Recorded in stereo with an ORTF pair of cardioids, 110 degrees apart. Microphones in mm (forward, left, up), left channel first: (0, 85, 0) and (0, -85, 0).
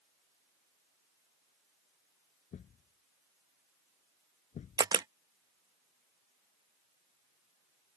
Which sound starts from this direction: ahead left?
A thud, at 2.5 s.